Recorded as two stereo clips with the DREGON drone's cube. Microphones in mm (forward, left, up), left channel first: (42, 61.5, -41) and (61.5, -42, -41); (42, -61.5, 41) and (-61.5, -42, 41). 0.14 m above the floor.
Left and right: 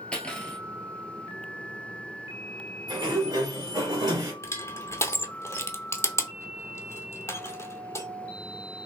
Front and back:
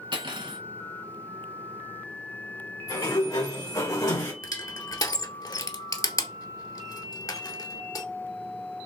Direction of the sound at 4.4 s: 35° left.